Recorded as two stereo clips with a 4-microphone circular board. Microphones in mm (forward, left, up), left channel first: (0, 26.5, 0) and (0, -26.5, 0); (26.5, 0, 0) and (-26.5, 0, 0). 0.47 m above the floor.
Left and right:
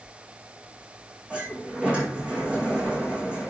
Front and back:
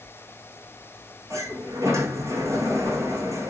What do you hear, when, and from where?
1.3 s a sliding door: 155° right, 4.5 m